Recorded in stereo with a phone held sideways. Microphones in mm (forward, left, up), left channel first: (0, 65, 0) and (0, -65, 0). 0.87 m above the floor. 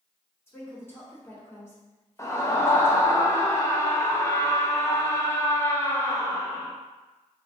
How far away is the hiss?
I don't hear a hiss.